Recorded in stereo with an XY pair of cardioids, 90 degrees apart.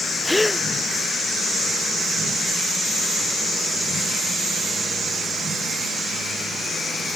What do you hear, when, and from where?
0.2 s a gasp: 15° left